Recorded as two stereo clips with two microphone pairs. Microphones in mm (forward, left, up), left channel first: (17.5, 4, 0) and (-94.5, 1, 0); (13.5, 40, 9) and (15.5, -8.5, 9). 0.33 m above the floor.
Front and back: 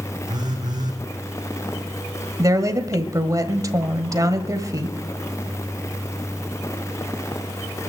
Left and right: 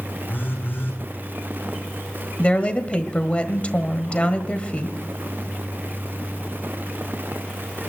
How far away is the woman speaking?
About 1.4 m.